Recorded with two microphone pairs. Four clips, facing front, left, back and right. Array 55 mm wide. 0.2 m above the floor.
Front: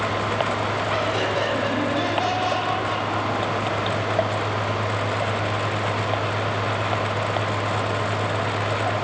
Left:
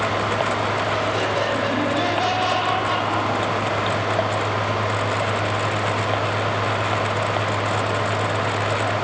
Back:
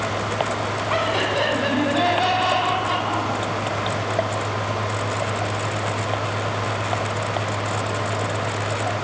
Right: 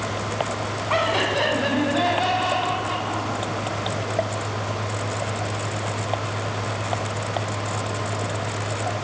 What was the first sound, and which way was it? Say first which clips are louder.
Laughter: even, back 4 dB; 115° right.